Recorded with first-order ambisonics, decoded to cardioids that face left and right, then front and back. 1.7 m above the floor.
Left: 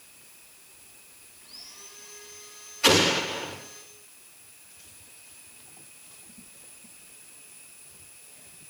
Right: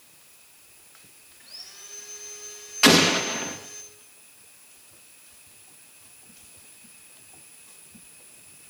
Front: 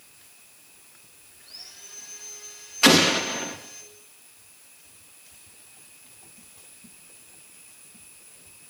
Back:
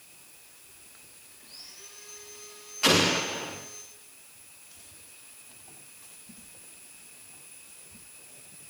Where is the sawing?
70° right, 5.5 m.